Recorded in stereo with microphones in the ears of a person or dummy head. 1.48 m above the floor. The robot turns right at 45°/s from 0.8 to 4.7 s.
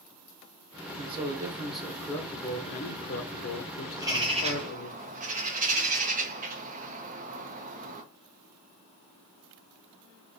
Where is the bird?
175° right, 0.6 m; by 8.0 s 140° right, 0.6 m.